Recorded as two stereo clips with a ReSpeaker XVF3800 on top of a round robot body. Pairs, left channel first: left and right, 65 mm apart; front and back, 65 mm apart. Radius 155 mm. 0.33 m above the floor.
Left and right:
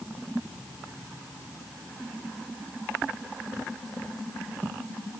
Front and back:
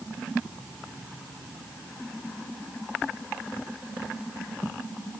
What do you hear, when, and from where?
Only background noise.